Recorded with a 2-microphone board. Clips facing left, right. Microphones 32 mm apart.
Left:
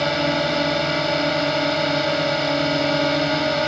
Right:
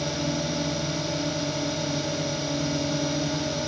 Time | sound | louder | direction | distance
0.0 | a drone | left 8 dB | 55° left (ahead or behind) | ?